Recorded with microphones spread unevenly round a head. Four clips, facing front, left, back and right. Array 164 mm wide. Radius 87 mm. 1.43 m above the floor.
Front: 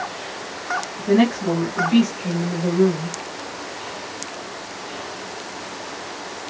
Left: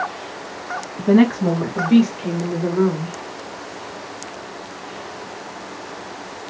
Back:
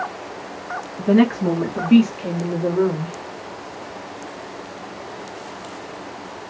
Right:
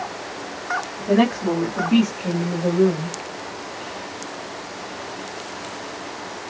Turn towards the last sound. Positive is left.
turn(degrees=140)